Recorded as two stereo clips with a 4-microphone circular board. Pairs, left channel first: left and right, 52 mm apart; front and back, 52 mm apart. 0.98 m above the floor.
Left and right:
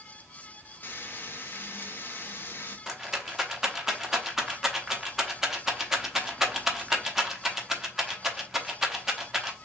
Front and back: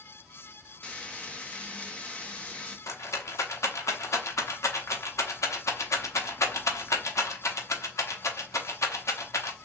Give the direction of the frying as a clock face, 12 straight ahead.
10 o'clock.